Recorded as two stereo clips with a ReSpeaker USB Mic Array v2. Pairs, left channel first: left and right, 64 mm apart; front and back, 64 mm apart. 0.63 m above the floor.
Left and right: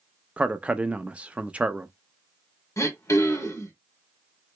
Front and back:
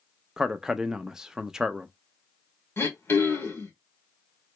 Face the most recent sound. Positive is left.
turn(degrees=50)